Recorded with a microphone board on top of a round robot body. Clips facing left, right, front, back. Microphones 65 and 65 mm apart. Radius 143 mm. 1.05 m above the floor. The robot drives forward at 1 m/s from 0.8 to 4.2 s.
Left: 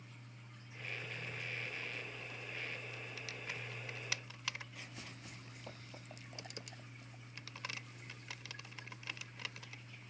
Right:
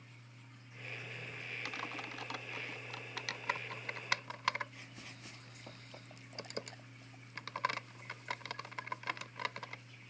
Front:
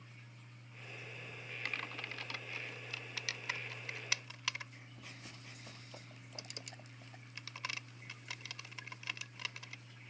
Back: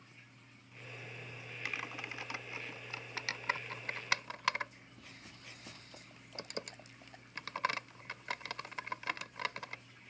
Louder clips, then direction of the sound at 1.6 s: Right 3 dB, back 2 dB; 95° right.